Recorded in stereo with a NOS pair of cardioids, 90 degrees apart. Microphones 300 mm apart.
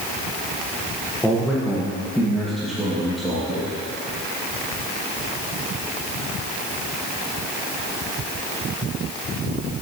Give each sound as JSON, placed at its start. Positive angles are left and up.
{"t": 1.2, "sound": "a man speaking", "azimuth_deg": 5, "distance_m": 1.1}